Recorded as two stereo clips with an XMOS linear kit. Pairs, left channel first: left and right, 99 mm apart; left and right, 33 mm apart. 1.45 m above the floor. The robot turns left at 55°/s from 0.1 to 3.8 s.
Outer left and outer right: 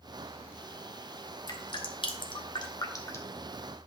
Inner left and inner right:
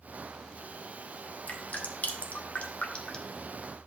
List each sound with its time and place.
1.5 s dripping: 40° left (ahead or behind), 1.4 m; by 3.4 s 15° left (ahead or behind), 1.4 m